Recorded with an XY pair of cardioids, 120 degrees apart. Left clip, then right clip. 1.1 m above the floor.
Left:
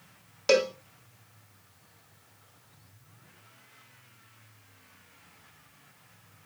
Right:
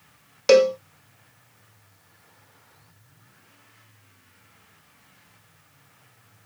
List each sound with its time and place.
0.5 s a cowbell: 25° right, 0.5 m